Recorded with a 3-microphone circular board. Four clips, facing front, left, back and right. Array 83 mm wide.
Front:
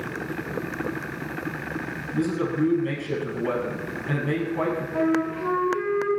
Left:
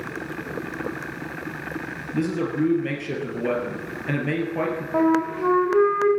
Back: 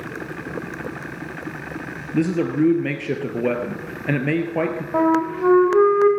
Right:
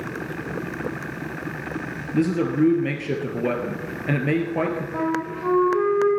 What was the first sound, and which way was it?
A man speaking, 165° right.